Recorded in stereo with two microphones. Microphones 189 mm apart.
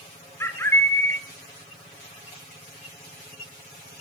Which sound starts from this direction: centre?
A bird, at 0.4 s.